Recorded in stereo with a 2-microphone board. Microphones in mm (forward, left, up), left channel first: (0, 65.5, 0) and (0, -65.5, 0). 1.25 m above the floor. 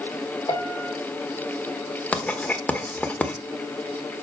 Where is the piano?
30° left (ahead or behind), 3.5 m.